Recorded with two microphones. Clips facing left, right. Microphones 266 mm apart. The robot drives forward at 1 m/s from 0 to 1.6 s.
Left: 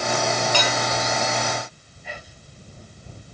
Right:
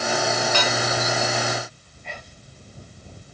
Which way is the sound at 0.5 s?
40° left (ahead or behind).